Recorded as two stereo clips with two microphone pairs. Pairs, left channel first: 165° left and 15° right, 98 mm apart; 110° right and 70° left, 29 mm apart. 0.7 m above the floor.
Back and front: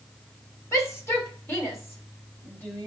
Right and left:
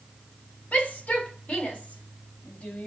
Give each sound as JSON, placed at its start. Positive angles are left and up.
{"t": 0.7, "sound": "a shout", "azimuth_deg": -140, "distance_m": 4.5}